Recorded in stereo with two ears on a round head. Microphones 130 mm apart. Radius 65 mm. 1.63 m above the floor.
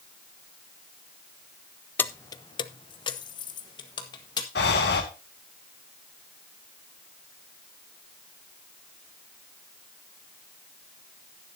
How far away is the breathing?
About 2.5 m.